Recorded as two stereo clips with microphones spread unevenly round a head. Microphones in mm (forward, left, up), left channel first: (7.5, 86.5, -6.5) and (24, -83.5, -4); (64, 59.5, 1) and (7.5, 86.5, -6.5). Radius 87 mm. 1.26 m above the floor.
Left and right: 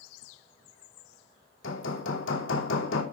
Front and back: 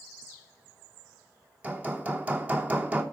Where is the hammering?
90° left, 3 m.